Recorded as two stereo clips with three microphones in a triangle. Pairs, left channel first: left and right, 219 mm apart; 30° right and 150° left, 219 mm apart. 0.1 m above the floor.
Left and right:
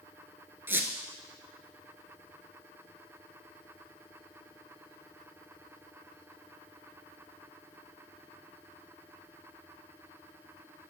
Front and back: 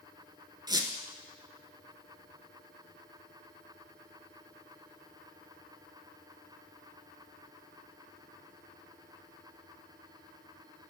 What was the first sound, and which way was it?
A squeak, 160° right.